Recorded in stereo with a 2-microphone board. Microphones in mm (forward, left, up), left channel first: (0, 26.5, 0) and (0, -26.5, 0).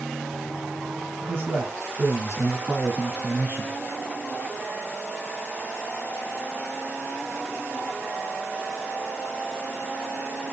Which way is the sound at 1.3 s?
45° right (ahead or behind).